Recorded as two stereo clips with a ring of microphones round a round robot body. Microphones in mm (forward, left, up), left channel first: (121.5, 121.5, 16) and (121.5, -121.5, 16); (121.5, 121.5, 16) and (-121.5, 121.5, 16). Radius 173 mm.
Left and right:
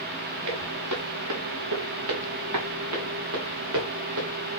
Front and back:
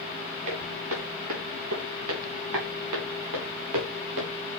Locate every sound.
0.5 s footsteps: 135° right, 5 m; by 4.3 s 145° right, 3 m